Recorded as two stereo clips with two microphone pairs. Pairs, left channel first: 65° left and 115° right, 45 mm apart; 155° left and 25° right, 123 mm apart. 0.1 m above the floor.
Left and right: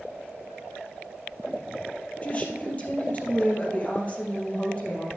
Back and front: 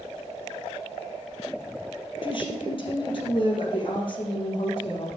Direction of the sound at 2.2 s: 115° left.